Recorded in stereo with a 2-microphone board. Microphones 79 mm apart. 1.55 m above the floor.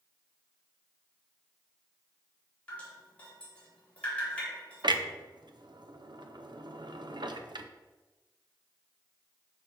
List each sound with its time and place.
2.7 s dripping: 20° left (ahead or behind), 3 m
4.8 s a clunk: 70° right (ahead or behind), 0.6 m